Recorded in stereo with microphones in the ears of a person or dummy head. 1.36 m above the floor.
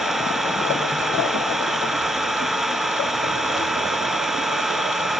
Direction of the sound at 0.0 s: Centre (ahead or behind).